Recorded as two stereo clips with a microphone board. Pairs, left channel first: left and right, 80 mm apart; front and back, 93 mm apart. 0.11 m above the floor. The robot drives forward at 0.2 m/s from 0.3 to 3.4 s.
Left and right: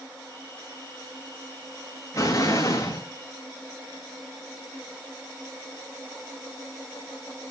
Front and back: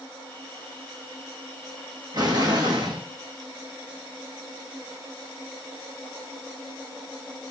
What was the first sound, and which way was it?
An explosion, 140° left.